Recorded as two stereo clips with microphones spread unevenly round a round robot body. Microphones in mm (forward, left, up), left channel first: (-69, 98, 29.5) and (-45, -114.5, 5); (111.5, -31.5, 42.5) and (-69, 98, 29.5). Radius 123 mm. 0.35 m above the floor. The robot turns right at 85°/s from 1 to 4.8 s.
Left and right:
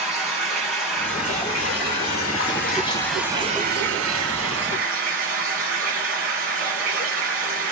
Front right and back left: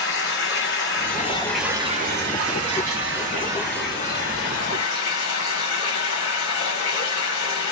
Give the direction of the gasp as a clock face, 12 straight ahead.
I don't hear a gasp.